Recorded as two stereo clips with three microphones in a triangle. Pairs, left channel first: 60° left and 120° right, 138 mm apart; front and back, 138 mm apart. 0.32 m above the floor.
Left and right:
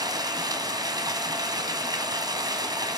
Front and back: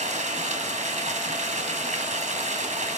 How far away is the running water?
About 2.5 m.